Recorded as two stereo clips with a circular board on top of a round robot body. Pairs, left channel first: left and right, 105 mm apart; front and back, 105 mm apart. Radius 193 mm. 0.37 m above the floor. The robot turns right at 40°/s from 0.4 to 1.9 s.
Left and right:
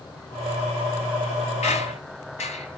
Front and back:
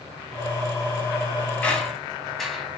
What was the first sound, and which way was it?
A squeak, 75° left.